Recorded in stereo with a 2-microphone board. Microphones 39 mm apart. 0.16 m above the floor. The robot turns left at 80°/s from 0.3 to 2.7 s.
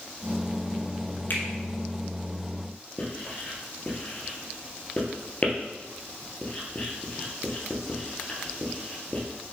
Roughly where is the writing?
Left.